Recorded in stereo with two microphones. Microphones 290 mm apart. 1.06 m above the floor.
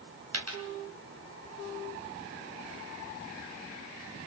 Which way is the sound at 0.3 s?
55° right (ahead or behind).